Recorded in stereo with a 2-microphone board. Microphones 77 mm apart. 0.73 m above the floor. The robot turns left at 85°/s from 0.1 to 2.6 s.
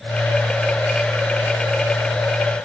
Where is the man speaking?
No man speaking in this recording.